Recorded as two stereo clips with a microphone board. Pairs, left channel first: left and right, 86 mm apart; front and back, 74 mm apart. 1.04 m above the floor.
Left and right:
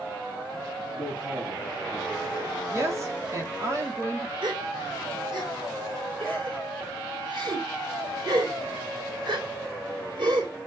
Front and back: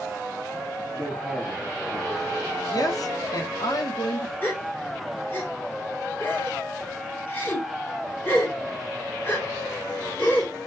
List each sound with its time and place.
0.9 s a man speaking: 80° right, 2.5 m; by 3.0 s 55° right, 4 m
2.7 s a woman speaking: 35° right, 1.9 m
4.4 s a gasp: 65° right, 4 m